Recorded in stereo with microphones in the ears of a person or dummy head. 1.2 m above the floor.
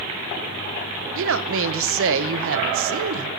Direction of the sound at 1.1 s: 65° right (ahead or behind).